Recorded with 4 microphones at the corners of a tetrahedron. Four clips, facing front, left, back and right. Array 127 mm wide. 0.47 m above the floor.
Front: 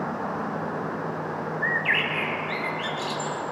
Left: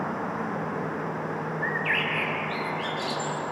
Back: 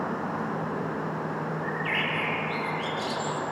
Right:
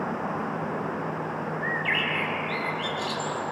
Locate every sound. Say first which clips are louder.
1.6 s a bird: left 1 dB, front 3 dB; 30° left, 3 m